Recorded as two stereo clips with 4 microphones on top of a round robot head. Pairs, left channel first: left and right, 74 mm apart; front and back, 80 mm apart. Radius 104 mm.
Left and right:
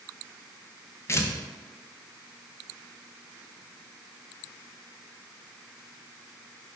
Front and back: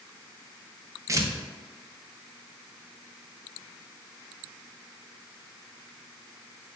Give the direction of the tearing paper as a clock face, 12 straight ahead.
7 o'clock.